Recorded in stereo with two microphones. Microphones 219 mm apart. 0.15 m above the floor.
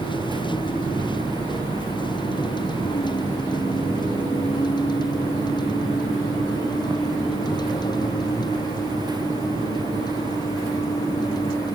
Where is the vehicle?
20° left (ahead or behind).